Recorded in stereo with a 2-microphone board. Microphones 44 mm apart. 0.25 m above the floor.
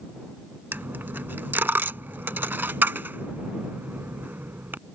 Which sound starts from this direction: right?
A dropped coin, at 0.7 s.